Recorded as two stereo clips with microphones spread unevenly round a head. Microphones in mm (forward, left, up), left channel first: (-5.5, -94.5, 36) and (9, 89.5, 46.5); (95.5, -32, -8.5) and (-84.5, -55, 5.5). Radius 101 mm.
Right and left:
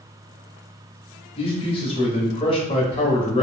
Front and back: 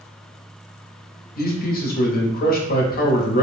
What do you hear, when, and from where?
1.4 s a man speaking: 30° right, 0.8 m